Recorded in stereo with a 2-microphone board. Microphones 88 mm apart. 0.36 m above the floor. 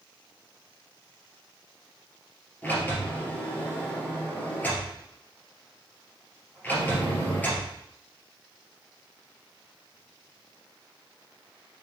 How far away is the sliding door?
About 2.5 m.